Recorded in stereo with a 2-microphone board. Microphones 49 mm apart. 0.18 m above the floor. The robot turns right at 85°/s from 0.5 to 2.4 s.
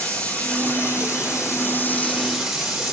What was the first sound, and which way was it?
Running water, 30° left.